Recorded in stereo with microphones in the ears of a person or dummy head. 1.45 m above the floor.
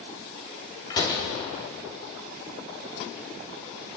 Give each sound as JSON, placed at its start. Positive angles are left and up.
{"t": 0.9, "sound": "a door slam", "side_deg": 25, "distance_m": 1.9}